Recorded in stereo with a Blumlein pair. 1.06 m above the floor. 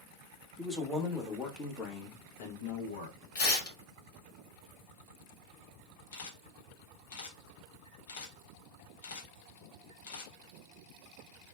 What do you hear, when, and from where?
0.6 s a man speaking: 5° left, 1.5 m; by 3.2 s 80° left, 1.1 m
3.4 s tearing paper: 45° left, 1.3 m
6.1 s a camera shutter: 55° left, 0.9 m